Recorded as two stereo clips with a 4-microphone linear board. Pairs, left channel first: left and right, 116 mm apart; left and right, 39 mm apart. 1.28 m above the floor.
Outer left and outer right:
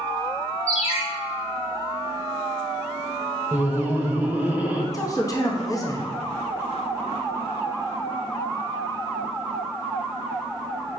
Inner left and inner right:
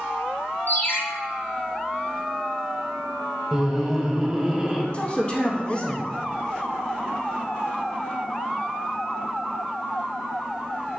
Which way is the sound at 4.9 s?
30° left (ahead or behind).